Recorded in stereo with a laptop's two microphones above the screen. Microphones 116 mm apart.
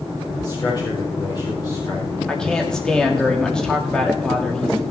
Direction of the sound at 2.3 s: 5° left (ahead or behind).